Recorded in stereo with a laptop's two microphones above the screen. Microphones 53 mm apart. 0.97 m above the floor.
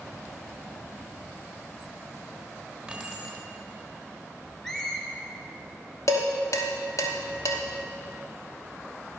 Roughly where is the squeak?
Centre.